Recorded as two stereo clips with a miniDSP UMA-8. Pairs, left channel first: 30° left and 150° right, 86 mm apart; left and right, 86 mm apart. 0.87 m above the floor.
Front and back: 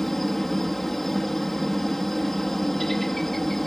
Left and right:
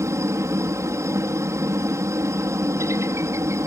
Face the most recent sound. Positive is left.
turn(degrees=-55)